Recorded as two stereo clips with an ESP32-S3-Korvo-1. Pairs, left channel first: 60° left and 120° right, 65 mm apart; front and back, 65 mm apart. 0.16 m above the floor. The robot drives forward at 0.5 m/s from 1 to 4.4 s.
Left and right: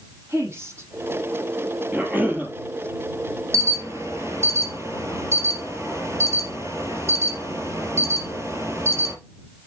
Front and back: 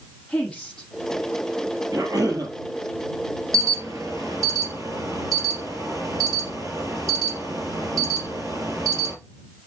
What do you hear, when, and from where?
0.3 s a woman speaking: 80° right, 6 m
1.9 s a cough: straight behind, 3.5 m
3.5 s an alarm: 155° right, 2.5 m; by 9.1 s 160° right, 3 m